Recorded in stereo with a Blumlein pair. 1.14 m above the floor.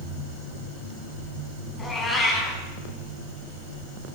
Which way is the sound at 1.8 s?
15° left.